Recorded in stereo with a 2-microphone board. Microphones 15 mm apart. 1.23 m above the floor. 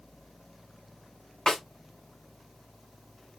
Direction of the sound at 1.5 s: 55° left (ahead or behind).